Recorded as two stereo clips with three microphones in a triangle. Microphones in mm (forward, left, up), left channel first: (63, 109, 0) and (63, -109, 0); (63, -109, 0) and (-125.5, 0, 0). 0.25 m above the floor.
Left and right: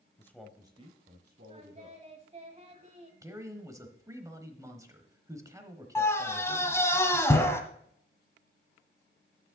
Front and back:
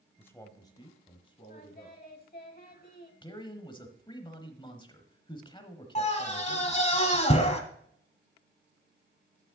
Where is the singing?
45° right, 1.2 m.